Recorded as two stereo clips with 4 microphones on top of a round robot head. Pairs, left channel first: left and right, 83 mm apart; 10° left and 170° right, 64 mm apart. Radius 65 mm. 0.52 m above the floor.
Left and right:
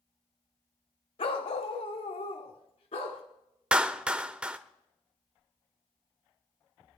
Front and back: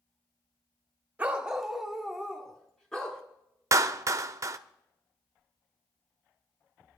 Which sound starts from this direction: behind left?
A dog barking, at 1.2 s.